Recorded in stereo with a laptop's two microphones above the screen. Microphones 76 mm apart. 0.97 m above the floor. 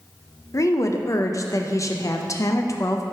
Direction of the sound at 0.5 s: 40° left (ahead or behind).